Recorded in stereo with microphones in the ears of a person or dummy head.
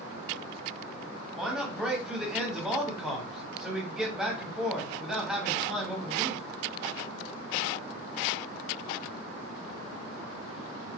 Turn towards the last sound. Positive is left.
turn(degrees=0)  # may be behind; listen again after turning